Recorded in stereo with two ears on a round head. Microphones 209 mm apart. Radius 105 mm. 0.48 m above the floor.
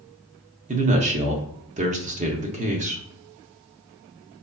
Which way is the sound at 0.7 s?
30° right (ahead or behind).